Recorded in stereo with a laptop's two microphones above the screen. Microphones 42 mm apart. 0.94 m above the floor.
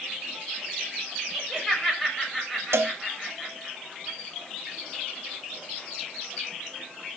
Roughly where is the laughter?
Centre.